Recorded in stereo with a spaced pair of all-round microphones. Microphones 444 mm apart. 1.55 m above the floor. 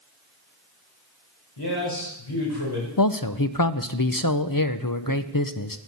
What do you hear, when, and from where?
1.6 s a man speaking: 65° left (ahead or behind), 5 m
3.0 s a man speaking: 50° left (ahead or behind), 0.6 m